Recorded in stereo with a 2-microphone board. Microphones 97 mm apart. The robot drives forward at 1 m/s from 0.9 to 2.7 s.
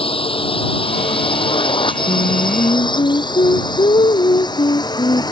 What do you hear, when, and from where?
0.0 s a drone: 75° left (ahead or behind); by 5.3 s 50° left (ahead or behind)
2.1 s singing: 80° left; by 5.2 s 75° left (ahead or behind)